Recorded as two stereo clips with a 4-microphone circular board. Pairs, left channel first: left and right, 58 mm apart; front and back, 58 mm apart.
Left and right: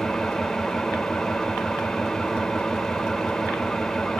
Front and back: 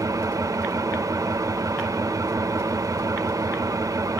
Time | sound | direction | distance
0.0 | an engine running | 170° left | 0.9 m